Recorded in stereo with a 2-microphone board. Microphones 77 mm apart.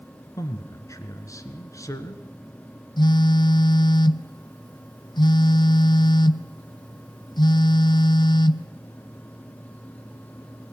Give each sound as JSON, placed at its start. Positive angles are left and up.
{"t": 0.4, "sound": "a man speaking", "side_deg": 45, "distance_m": 1.6}
{"t": 3.0, "sound": "a phone buzzing", "side_deg": 70, "distance_m": 0.6}